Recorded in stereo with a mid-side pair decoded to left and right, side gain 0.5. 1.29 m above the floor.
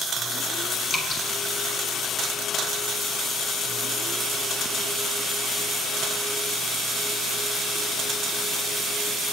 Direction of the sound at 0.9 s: 60° left.